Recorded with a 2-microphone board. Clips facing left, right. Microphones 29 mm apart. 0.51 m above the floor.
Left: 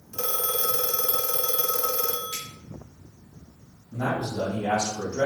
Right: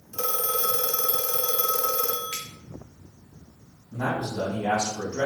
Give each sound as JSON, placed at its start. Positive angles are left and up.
{"t": 0.1, "sound": "a phone ringing", "side_deg": 5, "distance_m": 0.7}
{"t": 2.3, "sound": "a finger snap", "side_deg": -50, "distance_m": 2.5}
{"t": 3.9, "sound": "a man speaking", "side_deg": -55, "distance_m": 2.0}